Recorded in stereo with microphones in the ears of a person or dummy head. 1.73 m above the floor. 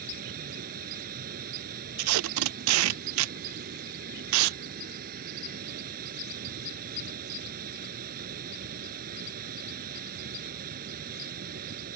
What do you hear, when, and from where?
0.0 s running water: 50° right (ahead or behind)
2.0 s tape being pulled: 75° right (ahead or behind)